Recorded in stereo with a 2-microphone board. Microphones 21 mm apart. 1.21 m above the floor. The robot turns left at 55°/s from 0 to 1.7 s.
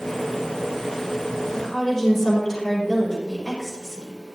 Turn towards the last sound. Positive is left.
turn(degrees=0)  # may be behind; listen again after turning